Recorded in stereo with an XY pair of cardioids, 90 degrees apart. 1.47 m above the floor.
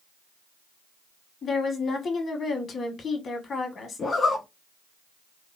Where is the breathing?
I don't hear breathing.